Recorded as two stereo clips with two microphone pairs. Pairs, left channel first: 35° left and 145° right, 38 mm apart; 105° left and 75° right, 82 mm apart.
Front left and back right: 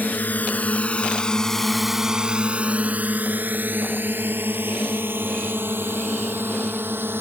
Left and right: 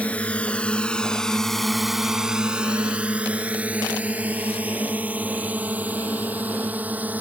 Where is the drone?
35° left; by 7.2 s 145° right.